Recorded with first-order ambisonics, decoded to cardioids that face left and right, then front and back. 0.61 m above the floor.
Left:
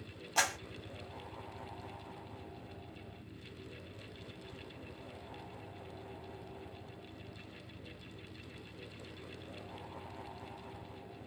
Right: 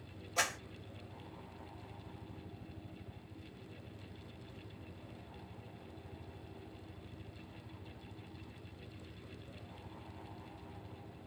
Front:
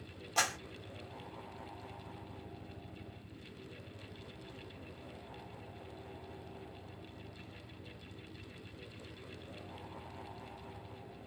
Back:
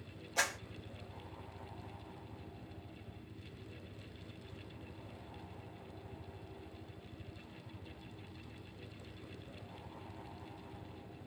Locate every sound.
0.4 s a clap: 50° left, 1.6 m